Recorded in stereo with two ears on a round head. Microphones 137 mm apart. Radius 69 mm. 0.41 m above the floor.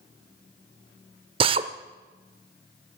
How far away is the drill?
About 0.6 m.